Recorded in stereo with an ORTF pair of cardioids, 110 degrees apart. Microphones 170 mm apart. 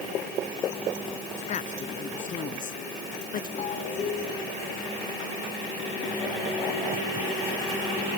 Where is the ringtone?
45° left.